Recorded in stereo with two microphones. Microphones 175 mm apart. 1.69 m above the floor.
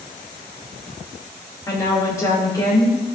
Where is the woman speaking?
20° left (ahead or behind), 2.5 m.